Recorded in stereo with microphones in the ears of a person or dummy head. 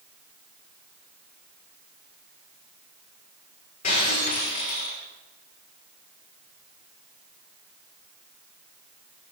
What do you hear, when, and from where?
3.8 s breaking glass: 40° left (ahead or behind), 6 m